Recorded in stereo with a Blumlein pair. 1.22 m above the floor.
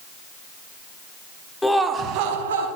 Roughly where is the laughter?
Ahead.